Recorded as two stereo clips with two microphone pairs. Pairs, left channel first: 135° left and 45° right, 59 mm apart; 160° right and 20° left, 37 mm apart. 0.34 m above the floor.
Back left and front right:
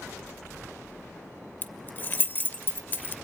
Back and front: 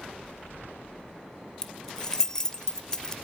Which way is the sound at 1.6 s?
135° left.